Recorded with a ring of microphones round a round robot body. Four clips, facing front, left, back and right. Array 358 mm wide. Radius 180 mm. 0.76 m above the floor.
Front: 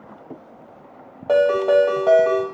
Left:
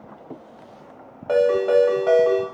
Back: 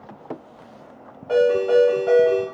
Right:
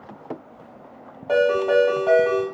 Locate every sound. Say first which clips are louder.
1.3 s a ringtone: left 1 dB, front 1 dB; 20° left, 1.4 m